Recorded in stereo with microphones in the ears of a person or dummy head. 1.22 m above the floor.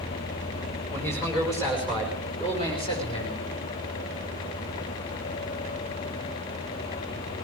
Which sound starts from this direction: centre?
A man speaking, at 0.9 s.